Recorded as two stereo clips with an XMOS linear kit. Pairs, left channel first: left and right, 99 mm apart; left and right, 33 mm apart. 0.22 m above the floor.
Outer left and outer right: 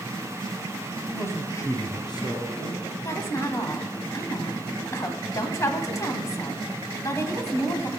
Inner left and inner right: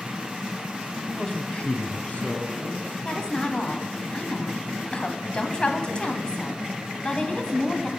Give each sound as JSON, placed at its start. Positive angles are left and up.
{"t": 1.1, "sound": "a man speaking", "side_deg": 20, "distance_m": 1.1}
{"t": 3.0, "sound": "a woman speaking", "side_deg": 35, "distance_m": 1.1}